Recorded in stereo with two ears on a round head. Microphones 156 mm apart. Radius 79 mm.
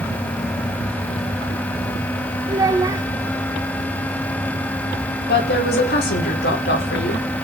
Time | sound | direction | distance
2.5 | a child speaking | 20° right (ahead or behind) | 0.6 m
5.3 | a woman speaking | 60° left (ahead or behind) | 5 m